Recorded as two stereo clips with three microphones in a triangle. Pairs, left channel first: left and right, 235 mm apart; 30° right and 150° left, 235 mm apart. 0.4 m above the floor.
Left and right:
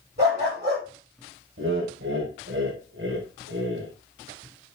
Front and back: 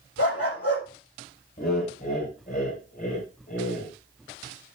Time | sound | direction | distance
0.2 | a dog barking | 45° right | 5.5 m
1.6 | laughter | 75° right | 2 m